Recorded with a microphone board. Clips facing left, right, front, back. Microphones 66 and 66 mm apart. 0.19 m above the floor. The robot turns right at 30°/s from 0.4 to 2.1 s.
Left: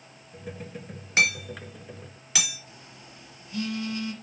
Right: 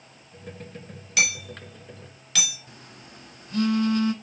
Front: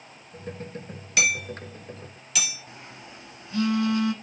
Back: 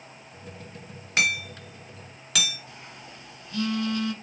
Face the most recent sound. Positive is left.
turn(degrees=-65)